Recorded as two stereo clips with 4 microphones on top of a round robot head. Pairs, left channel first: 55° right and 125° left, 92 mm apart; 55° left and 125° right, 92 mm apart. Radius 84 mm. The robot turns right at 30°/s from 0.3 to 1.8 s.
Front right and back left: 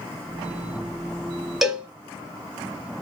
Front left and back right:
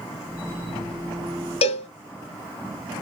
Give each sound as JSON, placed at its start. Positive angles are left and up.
{"t": 1.6, "sound": "a cowbell", "azimuth_deg": 40, "distance_m": 0.8}